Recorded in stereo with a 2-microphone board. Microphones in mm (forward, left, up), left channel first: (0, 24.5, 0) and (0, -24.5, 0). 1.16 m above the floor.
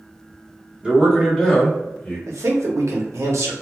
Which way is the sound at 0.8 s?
25° right (ahead or behind).